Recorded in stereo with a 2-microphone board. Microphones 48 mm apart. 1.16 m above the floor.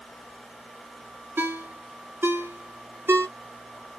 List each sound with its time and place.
1.4 s a ringtone: 50° right (ahead or behind), 0.8 m